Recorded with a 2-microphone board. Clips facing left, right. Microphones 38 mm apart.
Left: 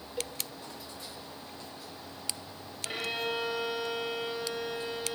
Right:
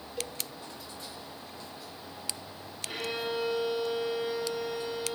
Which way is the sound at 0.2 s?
15° left (ahead or behind).